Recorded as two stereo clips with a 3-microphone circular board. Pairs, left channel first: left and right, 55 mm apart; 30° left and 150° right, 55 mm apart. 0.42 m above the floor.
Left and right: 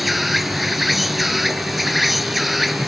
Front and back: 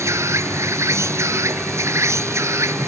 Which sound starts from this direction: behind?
An insect, at 0.0 s.